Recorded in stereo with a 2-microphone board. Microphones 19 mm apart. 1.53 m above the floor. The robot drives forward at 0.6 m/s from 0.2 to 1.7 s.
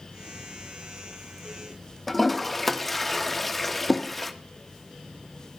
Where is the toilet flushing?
10° left (ahead or behind), 1.2 m.